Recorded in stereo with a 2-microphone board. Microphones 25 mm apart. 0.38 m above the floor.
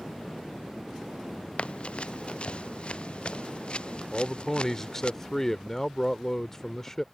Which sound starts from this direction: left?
Running footsteps, at 1.6 s.